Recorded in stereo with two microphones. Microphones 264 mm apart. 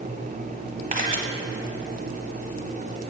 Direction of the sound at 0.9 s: 30° right (ahead or behind).